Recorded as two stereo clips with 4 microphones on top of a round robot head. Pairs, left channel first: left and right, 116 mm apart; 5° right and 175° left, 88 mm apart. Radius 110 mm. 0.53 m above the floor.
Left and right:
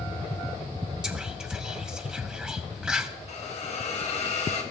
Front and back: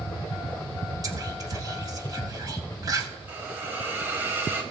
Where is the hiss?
110° left, 2 m.